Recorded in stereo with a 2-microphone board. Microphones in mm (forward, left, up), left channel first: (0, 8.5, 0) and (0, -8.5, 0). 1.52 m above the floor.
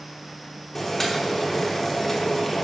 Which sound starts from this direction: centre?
Boiling, at 0.8 s.